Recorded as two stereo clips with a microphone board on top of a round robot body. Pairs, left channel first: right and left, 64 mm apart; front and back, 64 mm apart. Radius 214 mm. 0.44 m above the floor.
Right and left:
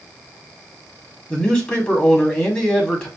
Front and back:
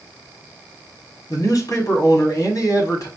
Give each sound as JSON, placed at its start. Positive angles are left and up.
{"t": 1.3, "sound": "a man speaking", "azimuth_deg": -15, "distance_m": 2.0}